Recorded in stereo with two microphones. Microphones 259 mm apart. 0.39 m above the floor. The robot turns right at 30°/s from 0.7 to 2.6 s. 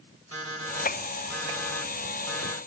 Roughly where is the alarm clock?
Behind right.